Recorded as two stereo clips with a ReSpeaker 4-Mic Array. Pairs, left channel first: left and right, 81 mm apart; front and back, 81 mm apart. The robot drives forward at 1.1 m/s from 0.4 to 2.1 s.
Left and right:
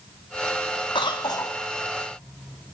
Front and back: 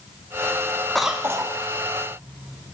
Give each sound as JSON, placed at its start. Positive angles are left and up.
{"t": 0.9, "sound": "a cough", "azimuth_deg": 85, "distance_m": 0.6}